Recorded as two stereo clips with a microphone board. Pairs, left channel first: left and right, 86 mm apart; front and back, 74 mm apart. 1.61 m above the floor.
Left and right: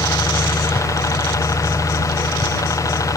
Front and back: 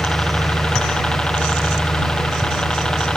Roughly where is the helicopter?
Left.